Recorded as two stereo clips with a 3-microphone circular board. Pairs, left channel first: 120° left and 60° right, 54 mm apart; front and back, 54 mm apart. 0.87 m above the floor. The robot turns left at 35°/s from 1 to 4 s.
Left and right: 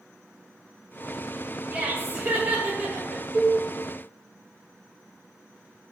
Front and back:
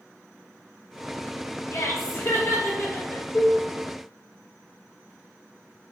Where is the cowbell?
90° right, 0.8 m; by 3.6 s 100° right, 0.8 m.